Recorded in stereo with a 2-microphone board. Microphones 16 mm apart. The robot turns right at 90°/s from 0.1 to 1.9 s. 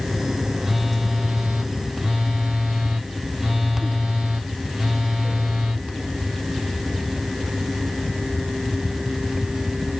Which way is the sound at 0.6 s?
Straight behind.